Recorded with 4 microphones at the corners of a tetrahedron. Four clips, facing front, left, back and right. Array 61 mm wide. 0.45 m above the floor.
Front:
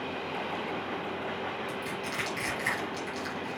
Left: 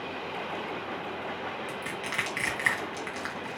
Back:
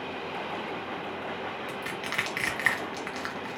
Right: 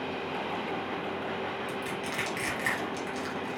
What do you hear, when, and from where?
1.7 s crushing: 150° left, 1.3 m